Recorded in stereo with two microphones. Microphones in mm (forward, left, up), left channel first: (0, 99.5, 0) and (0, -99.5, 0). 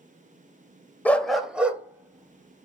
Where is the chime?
I don't hear a chime.